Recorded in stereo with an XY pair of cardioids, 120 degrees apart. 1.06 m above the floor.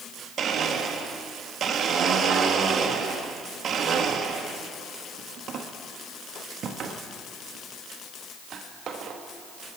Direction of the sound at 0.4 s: 50° right.